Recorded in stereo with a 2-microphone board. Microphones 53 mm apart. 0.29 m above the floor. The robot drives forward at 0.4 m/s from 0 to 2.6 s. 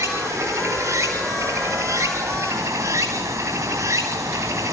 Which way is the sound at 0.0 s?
85° right.